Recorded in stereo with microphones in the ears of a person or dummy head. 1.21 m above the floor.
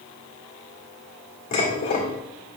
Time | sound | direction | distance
1.5 | dishes clattering | 40° left (ahead or behind) | 1.8 m